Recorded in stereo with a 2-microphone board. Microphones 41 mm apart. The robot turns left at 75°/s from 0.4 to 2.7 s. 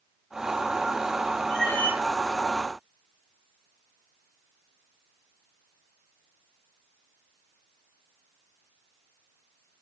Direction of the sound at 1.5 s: 175° left.